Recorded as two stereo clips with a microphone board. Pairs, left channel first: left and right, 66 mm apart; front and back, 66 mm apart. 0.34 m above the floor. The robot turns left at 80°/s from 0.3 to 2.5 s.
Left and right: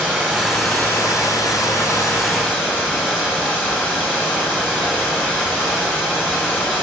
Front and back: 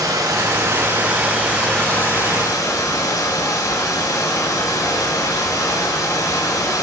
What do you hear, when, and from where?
0.0 s running water: 160° right, 3 m; by 6.8 s 25° left, 3 m